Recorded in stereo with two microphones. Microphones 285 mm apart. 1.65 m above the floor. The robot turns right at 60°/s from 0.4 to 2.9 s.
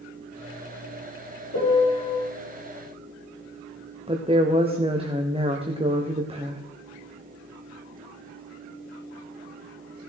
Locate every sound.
1.5 s a piano: 60° left, 4 m; by 2.1 s 95° left, 4 m
4.1 s a woman speaking: 20° right (ahead or behind), 1.1 m